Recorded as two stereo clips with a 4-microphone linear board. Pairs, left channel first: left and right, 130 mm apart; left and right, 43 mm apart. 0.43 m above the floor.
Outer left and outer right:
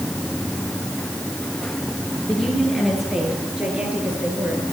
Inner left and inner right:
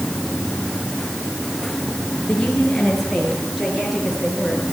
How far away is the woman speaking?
About 7 m.